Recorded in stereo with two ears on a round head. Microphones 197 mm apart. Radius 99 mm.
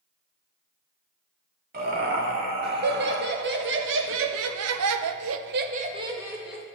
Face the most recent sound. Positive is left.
turn(degrees=0)  # may be behind; listen again after turning